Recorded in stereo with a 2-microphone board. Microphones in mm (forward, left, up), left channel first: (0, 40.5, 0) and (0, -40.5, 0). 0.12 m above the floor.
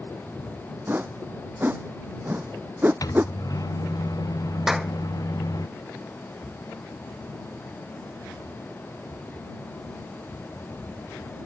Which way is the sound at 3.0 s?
50° left (ahead or behind).